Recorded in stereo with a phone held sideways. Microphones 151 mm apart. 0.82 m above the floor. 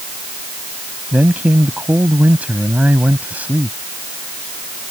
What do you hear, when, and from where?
1.1 s a man speaking: 10° right (ahead or behind)